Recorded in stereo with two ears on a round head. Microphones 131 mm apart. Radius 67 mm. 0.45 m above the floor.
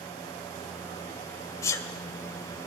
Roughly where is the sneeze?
Left.